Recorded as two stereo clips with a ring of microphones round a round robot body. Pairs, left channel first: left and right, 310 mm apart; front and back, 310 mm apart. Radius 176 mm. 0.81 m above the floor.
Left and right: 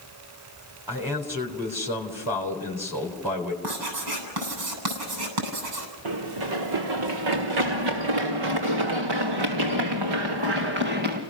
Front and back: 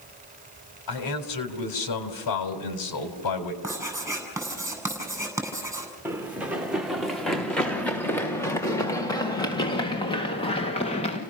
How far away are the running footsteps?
About 3.5 m.